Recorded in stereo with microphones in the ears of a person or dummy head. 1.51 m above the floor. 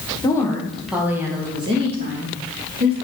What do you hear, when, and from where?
0.2 s a woman speaking: 20° left (ahead or behind), 1.5 m; by 2.9 s 50° right (ahead or behind), 3 m